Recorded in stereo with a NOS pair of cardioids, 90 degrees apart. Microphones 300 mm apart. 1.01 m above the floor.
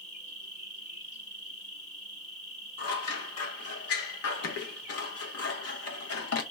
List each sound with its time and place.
0.0 s an insect: 25° left, 1.1 m
2.8 s scissors: 55° left, 0.7 m